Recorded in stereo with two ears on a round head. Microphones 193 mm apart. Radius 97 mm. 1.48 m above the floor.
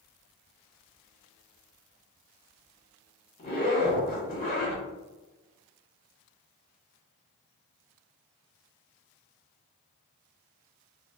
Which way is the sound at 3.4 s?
40° left (ahead or behind).